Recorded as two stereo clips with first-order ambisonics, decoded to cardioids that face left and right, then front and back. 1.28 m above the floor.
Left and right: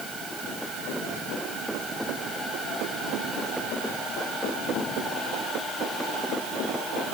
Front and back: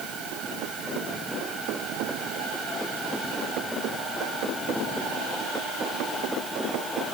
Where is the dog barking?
I don't hear a dog barking.